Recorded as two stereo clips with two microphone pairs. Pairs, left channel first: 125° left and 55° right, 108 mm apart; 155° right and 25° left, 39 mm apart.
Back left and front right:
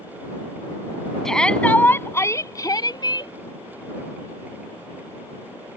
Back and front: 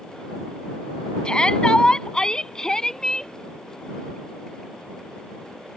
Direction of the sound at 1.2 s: 155° right.